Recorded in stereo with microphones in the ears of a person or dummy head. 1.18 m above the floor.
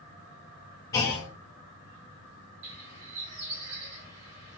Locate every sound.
0.9 s a clunk: 15° left (ahead or behind), 0.5 m
2.6 s a bird: 75° right (ahead or behind), 1.5 m